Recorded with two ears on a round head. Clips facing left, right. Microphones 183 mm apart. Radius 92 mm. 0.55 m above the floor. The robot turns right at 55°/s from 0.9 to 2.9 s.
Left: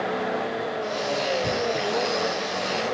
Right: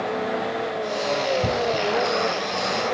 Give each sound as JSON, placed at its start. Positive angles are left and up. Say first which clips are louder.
{"t": 1.4, "sound": "knocking", "louder": "right 2 dB", "side_deg": -65, "distance_m": 6.0}